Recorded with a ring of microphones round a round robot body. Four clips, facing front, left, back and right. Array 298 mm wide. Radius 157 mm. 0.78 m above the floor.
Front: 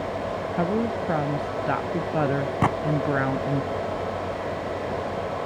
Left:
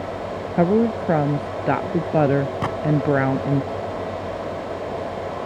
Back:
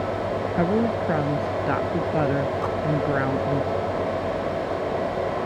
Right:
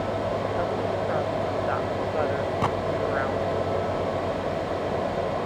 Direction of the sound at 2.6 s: 10° left.